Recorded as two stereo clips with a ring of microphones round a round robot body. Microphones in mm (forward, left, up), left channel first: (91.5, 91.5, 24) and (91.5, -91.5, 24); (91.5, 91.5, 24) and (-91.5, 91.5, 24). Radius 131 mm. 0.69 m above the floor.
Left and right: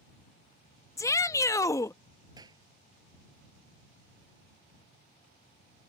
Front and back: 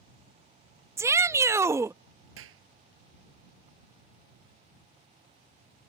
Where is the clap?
165° right.